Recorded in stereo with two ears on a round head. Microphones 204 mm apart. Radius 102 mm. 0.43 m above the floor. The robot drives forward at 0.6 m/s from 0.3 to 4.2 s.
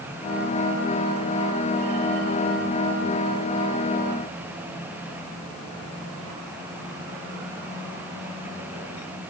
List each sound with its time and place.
Only background noise.